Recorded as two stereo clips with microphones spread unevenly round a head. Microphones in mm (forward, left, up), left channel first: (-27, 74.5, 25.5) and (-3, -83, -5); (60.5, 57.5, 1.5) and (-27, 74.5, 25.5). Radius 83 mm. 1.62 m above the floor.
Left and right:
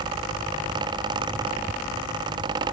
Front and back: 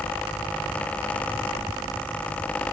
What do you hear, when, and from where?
Only background noise.